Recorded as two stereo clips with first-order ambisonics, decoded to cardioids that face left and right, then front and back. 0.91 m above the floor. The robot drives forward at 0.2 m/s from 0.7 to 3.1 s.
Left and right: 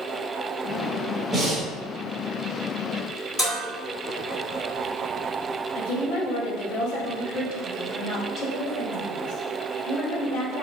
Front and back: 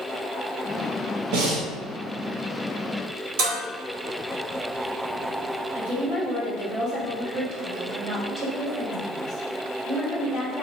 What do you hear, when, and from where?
1.3 s breathing: 175° right, 1.0 m
3.4 s dishes clattering: 170° left, 1.6 m
5.8 s a woman speaking: 130° left, 1.3 m